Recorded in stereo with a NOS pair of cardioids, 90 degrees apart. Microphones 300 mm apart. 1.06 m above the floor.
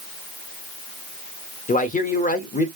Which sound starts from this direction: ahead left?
A man speaking, at 1.7 s.